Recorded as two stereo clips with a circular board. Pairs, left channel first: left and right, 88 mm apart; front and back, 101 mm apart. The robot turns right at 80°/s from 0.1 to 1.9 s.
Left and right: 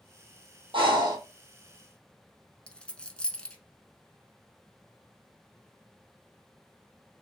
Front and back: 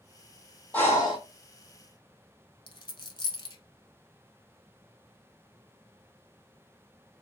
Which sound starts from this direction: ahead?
A dropped coin, at 2.7 s.